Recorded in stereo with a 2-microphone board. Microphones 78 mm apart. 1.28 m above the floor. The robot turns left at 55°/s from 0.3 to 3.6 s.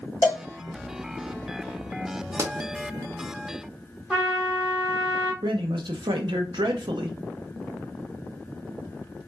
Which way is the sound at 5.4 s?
75° right (ahead or behind).